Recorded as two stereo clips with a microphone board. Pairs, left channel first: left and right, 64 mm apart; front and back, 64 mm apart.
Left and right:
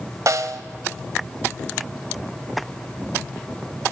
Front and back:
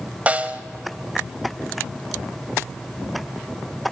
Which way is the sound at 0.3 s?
115° right.